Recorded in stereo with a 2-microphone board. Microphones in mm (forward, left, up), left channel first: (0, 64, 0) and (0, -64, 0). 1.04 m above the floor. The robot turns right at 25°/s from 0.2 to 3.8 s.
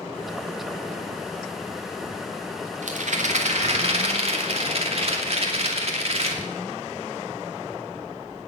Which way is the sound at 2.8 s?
75° right (ahead or behind).